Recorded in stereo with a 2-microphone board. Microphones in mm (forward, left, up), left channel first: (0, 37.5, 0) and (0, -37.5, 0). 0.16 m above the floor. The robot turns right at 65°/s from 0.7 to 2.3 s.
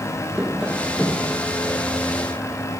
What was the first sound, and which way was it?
Tapping, 5° right.